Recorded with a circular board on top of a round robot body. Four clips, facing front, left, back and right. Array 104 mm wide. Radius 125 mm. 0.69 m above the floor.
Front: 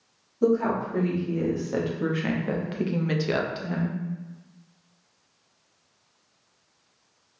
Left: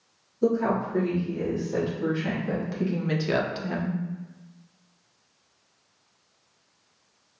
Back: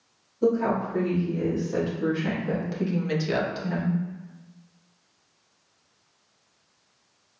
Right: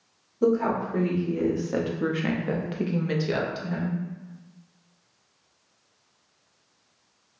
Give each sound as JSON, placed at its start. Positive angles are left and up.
{"t": 0.4, "sound": "a woman speaking", "azimuth_deg": -65, "distance_m": 1.6}